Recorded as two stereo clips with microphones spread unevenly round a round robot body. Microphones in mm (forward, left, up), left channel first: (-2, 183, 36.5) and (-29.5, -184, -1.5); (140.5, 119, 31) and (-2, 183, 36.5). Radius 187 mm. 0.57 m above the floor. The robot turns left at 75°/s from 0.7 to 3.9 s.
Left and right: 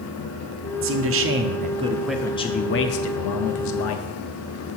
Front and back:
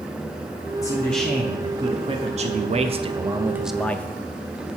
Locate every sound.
0.8 s a man speaking: 80° right, 0.7 m; by 4.1 s 50° left, 0.7 m